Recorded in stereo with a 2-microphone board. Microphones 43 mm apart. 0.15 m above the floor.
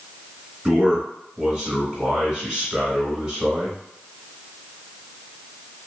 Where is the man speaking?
20° right (ahead or behind), 1.3 m.